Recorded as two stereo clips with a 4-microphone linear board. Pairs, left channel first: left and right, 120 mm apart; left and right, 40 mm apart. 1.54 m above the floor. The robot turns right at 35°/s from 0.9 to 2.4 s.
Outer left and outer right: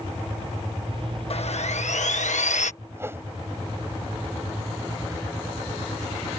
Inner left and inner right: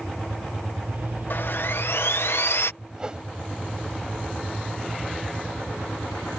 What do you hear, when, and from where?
1.3 s sawing: 60° left; by 2.7 s 95° left
2.9 s a whoosh: 20° right (ahead or behind)